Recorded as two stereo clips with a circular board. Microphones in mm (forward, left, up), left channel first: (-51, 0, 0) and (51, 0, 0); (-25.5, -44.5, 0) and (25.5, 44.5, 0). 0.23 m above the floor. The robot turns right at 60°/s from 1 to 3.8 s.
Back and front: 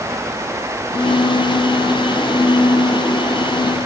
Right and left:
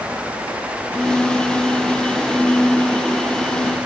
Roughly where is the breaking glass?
No breaking glass in this recording.